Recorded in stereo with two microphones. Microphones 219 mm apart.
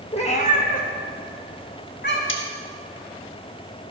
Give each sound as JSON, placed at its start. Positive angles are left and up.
{"t": 0.1, "sound": "a cat meowing", "side_deg": 30, "distance_m": 0.9}
{"t": 2.3, "sound": "cutlery clinking", "side_deg": 65, "distance_m": 1.3}